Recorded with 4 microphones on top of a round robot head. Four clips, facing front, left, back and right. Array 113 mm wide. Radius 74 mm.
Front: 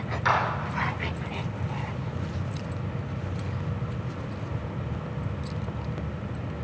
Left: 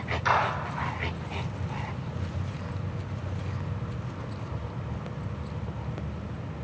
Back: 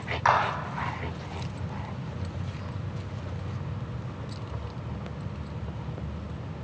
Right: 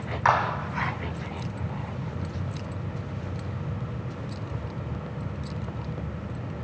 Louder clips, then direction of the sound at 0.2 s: Right 3 dB, back 2 dB; 125° right.